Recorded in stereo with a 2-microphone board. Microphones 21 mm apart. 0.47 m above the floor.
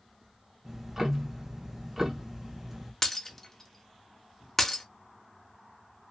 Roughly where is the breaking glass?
Centre.